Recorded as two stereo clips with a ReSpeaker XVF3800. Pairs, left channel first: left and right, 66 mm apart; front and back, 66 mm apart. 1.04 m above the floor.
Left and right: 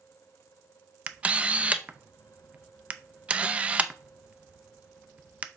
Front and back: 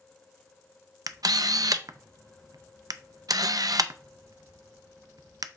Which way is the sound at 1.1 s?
155° right.